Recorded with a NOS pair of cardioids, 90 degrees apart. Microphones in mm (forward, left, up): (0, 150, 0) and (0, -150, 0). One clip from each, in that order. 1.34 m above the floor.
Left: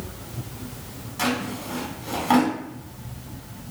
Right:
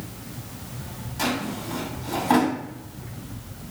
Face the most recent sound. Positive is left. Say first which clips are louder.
# left 1 dB
turn(degrees=25)